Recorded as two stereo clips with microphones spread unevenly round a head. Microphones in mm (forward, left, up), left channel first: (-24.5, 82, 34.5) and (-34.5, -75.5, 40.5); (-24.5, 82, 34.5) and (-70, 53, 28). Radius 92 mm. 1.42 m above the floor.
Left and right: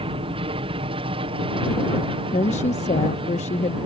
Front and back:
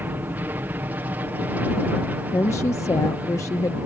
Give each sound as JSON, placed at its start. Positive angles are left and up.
{"t": 0.0, "sound": "an aircraft", "azimuth_deg": -125}
{"t": 2.3, "sound": "a woman speaking", "azimuth_deg": 35}